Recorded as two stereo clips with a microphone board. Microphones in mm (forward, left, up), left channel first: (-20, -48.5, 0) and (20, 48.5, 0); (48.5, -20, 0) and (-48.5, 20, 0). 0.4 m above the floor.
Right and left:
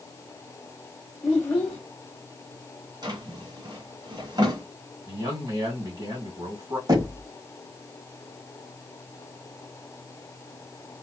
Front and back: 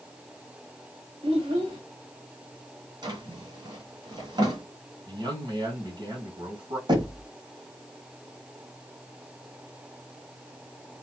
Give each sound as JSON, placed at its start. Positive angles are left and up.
{"t": 1.2, "sound": "a child speaking", "azimuth_deg": 170, "distance_m": 1.3}
{"t": 3.0, "sound": "a drawer", "azimuth_deg": 115, "distance_m": 1.8}
{"t": 5.1, "sound": "a man speaking", "azimuth_deg": 115, "distance_m": 3.0}
{"t": 6.9, "sound": "knocking", "azimuth_deg": 115, "distance_m": 1.6}